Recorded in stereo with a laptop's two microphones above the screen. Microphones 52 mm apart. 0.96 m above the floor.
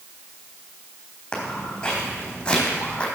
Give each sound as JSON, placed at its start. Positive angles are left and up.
{"t": 1.3, "sound": "footsteps", "side_deg": 15, "distance_m": 4.0}